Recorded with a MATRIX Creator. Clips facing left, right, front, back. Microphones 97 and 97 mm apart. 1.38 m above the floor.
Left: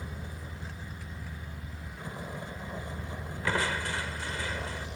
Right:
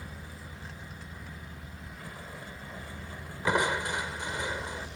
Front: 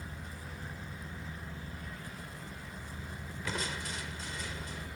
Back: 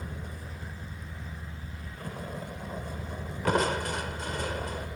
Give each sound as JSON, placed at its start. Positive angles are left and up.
{"t": 0.0, "sound": "a vehicle", "azimuth_deg": 160}
{"t": 3.5, "sound": "crushing", "azimuth_deg": -160}